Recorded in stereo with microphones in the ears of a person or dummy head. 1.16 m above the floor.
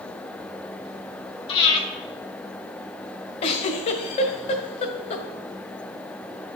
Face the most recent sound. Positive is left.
turn(degrees=35)  # may be behind; listen again after turning